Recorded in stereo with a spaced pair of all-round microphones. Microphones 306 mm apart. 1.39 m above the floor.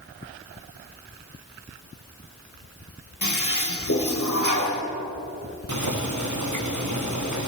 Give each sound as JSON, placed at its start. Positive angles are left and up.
{"t": 3.2, "sound": "a toilet flushing", "side_deg": 65, "distance_m": 2.0}
{"t": 5.7, "sound": "boiling", "side_deg": -65, "distance_m": 1.5}